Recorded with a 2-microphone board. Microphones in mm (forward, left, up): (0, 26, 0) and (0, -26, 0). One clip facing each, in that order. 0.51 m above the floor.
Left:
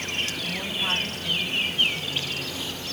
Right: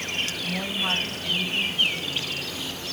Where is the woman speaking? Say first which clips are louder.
Right 2 dB; 5° right (ahead or behind), 4.5 m.